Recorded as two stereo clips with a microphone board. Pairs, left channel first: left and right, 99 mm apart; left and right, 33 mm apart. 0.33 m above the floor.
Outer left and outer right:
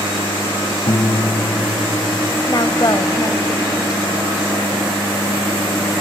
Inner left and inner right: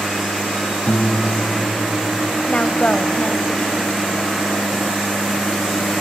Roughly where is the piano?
Left.